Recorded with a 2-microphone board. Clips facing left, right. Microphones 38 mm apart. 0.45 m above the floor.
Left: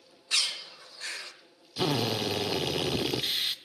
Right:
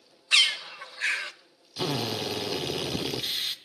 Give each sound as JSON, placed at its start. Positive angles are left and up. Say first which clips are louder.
{"t": 0.3, "sound": "a bird", "louder": "right 8 dB", "side_deg": -65, "distance_m": 0.8}
{"t": 1.8, "sound": "a drill", "louder": "left 1 dB", "side_deg": 15, "distance_m": 0.8}